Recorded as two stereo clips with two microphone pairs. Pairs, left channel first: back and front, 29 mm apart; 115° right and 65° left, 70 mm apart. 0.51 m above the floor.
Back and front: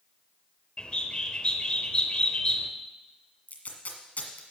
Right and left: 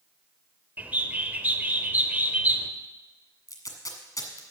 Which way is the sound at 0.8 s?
130° left.